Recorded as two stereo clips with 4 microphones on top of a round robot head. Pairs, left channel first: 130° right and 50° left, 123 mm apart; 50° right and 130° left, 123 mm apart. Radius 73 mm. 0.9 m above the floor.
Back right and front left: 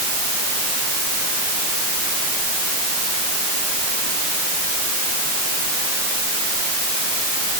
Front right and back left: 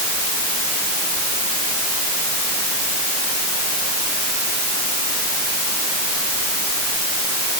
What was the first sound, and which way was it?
Only background noise.